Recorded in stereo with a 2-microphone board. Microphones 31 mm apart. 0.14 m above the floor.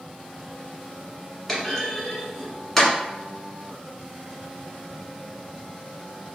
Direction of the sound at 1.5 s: 5° left (ahead or behind).